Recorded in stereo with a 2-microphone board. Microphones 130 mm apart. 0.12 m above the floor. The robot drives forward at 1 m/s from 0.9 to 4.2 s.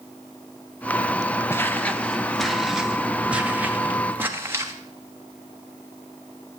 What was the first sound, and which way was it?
Footsteps, 20° left (ahead or behind).